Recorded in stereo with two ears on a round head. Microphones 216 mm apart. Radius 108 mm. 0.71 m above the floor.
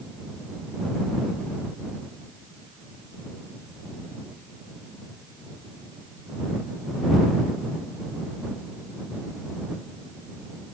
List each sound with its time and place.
Only background noise.